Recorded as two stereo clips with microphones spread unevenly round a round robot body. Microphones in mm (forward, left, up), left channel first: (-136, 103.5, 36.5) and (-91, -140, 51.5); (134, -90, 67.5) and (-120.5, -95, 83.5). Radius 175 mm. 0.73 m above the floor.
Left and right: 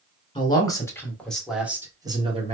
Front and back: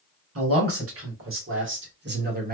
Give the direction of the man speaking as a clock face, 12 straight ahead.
6 o'clock.